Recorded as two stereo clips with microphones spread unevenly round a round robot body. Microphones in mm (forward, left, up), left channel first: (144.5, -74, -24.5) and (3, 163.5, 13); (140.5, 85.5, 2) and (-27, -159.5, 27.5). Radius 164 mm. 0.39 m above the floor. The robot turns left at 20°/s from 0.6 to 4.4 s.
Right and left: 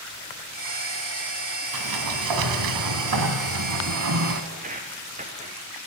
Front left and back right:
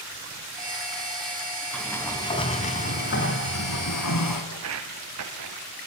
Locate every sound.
1.7 s a sliding door: 140° left, 2.5 m; by 4.4 s 90° left, 2.5 m
4.5 s footsteps: 175° right, 2.5 m; by 5.6 s 170° right, 3.5 m